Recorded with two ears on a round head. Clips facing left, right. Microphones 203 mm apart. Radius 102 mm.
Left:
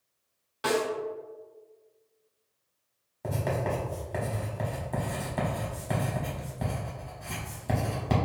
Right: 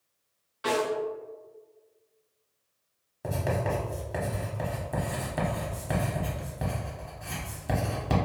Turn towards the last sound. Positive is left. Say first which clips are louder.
# even
turn(degrees=-5)  # may be behind; listen again after turning